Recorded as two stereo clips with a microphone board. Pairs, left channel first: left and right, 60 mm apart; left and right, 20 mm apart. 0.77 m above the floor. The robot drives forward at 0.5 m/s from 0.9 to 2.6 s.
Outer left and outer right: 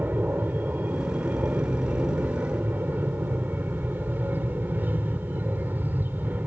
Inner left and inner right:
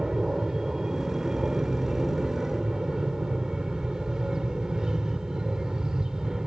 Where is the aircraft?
30° right (ahead or behind); by 6.5 s 35° right (ahead or behind).